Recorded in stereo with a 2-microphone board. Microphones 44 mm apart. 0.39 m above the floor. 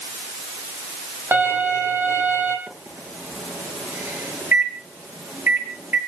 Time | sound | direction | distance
1.3 | a violin | 55° right (ahead or behind) | 4 m
2.7 | a microwave | 60° right (ahead or behind) | 6.5 m